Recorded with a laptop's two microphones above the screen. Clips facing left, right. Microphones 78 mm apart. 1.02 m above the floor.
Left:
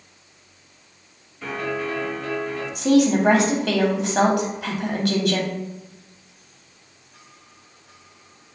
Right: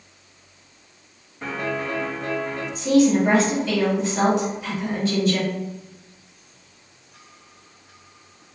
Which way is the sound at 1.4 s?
40° right (ahead or behind).